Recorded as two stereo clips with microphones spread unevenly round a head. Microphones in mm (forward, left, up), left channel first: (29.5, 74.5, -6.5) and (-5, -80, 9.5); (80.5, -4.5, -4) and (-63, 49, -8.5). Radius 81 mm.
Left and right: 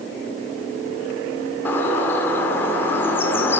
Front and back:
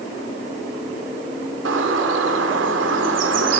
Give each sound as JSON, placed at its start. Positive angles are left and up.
{"t": 1.6, "sound": "a bird", "azimuth_deg": 155, "distance_m": 3.0}